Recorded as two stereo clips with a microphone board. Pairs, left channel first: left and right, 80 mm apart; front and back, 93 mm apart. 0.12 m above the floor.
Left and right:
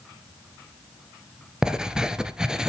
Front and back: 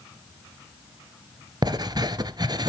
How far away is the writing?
About 0.9 m.